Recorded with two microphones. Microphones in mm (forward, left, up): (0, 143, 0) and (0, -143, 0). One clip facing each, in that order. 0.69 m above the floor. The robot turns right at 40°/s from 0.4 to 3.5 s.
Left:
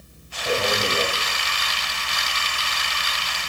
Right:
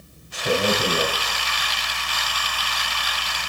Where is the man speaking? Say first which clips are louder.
Right 2 dB; 25° right (ahead or behind), 5 m; by 1.1 s centre (ahead or behind), 5 m.